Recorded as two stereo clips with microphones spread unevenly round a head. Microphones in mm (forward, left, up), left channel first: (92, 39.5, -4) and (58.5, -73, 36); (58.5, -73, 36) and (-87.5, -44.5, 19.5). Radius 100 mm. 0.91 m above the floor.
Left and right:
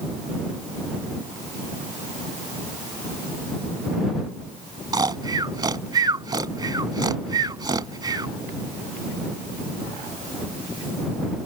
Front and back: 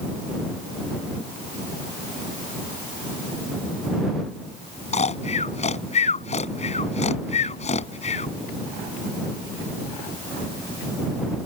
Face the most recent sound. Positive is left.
turn(degrees=-55)